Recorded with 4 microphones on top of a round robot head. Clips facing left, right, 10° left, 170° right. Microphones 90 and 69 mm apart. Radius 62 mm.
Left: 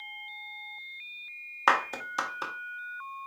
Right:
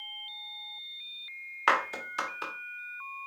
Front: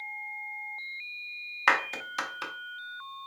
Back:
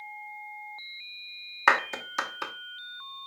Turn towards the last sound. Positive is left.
turn(degrees=135)